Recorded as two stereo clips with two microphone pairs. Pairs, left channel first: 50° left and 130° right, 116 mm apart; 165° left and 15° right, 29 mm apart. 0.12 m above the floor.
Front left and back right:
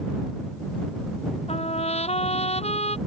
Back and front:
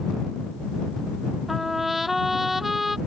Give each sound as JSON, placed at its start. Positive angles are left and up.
{"t": 1.5, "sound": "a trumpet", "azimuth_deg": 70}